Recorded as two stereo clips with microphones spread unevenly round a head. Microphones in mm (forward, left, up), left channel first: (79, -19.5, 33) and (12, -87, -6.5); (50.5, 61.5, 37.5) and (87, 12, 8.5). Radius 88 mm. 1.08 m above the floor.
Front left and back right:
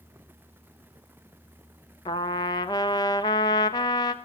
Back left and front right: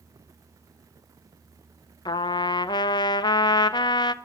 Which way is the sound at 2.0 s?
115° left.